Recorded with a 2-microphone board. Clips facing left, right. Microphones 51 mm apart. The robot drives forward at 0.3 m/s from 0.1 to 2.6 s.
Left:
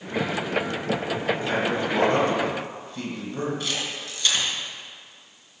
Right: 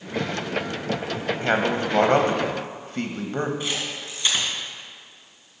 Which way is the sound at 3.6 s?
20° right (ahead or behind).